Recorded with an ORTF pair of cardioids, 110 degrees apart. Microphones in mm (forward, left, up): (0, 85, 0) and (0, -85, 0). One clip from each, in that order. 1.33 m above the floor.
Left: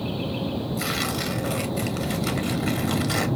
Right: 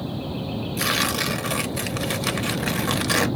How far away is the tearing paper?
About 0.7 m.